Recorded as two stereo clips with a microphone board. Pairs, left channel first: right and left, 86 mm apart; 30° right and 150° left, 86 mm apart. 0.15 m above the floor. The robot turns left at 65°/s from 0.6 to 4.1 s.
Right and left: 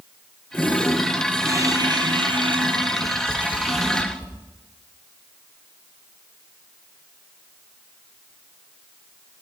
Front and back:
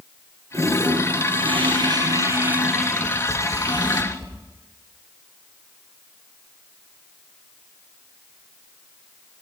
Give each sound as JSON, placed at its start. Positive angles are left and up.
{"t": 0.5, "sound": "a toilet flushing", "azimuth_deg": -155, "distance_m": 5.0}
{"t": 3.0, "sound": "tapping", "azimuth_deg": -85, "distance_m": 4.5}